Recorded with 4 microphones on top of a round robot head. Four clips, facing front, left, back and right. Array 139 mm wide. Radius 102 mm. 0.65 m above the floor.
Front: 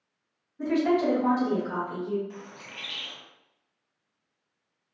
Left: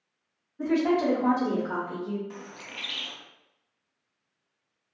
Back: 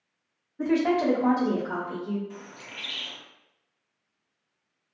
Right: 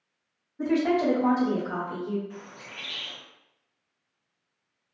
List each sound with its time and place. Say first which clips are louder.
0.6 s a woman speaking: even, back 1 dB; 170° right, 1.2 m; by 2.2 s 110° left, 1.4 m
2.3 s a bird: left 1 dB, even; 90° left, 0.6 m